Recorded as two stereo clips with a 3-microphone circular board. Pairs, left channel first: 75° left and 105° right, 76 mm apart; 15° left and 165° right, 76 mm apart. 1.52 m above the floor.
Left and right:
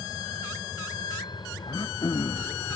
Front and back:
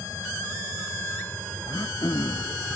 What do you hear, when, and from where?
0.0 s a vehicle: 65° left; by 2.8 s 100° left
1.7 s throat clearing: 50° left